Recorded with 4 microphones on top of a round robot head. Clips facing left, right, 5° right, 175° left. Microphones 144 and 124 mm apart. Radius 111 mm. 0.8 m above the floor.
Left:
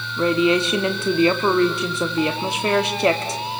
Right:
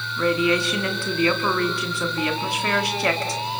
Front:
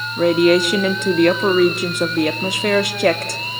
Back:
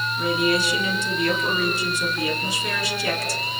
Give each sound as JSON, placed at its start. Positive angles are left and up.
{"t": 0.2, "sound": "a woman speaking", "azimuth_deg": 20, "distance_m": 1.7}